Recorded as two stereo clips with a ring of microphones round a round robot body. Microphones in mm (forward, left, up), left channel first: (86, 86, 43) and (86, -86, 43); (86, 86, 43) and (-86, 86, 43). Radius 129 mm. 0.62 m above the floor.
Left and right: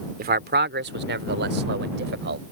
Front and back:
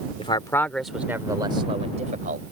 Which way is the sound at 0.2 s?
65° right.